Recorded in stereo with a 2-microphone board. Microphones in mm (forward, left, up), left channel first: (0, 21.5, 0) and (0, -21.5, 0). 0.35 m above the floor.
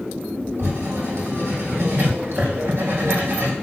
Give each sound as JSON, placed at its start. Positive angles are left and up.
{"t": 0.6, "sound": "writing", "side_deg": -85, "distance_m": 3.0}